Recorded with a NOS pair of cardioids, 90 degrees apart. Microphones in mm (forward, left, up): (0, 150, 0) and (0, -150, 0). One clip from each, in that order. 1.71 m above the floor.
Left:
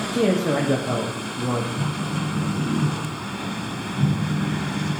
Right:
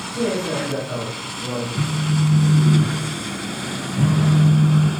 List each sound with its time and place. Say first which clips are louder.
0.1 s a man speaking: left 2 dB; 60° left, 1.3 m
1.8 s a phone buzzing: right 3 dB; 35° right, 1.3 m